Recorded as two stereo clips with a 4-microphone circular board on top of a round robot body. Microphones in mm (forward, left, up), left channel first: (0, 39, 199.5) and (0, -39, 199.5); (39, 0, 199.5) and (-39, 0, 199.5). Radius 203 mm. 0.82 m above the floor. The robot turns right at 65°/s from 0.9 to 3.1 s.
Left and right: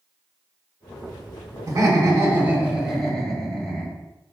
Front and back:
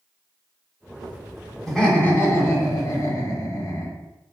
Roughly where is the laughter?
Right.